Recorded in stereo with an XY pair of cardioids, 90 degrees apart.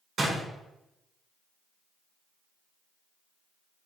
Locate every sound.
0.2 s a door slam: 45° right, 1.2 m